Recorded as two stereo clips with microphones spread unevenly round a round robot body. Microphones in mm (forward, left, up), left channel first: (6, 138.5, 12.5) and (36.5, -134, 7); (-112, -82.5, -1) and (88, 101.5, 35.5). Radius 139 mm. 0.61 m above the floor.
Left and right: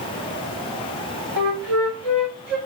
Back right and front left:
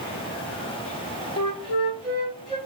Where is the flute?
70° right, 1.9 m.